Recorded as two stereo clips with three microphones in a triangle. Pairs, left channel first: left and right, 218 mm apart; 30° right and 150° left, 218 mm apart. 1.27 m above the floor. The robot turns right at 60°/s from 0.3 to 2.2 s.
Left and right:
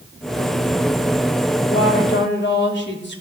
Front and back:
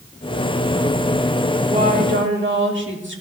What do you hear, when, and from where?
1.7 s a woman speaking: 90° left, 3 m; by 3.2 s 120° left, 3 m